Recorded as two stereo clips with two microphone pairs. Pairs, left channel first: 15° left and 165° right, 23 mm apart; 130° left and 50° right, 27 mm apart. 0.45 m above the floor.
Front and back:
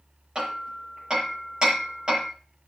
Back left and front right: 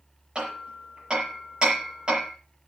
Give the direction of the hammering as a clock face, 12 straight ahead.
4 o'clock.